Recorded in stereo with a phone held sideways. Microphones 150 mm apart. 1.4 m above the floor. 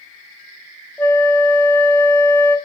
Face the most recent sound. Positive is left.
turn(degrees=15)  # may be behind; listen again after turning